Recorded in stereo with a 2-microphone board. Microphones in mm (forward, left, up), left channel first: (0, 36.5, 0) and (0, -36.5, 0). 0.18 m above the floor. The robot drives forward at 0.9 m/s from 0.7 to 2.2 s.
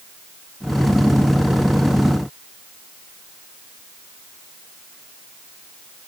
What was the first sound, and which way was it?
Only background noise.